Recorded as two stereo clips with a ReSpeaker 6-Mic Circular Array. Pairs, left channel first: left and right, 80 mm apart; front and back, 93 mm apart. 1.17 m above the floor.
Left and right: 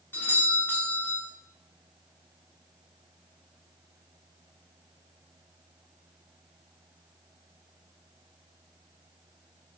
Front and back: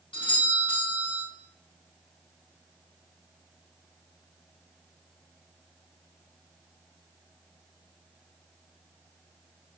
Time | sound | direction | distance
0.1 | a doorbell | 25° left | 1.4 m